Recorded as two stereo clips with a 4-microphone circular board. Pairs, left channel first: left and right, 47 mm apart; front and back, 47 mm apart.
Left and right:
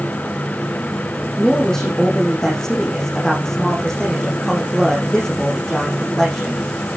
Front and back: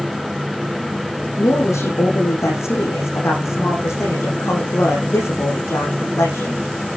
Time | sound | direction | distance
1.4 | a woman speaking | 10° left | 8.5 m